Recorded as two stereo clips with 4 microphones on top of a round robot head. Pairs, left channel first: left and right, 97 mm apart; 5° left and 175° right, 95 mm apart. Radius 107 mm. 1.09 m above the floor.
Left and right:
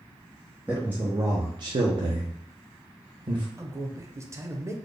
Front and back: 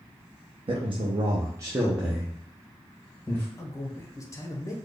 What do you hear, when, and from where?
0.7 s a man speaking: 170° right, 0.8 m; by 3.5 s 60° right, 1.3 m
3.6 s a man speaking: 40° right, 0.8 m